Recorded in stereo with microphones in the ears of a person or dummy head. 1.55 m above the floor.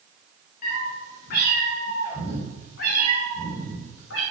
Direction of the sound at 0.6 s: 55° left (ahead or behind).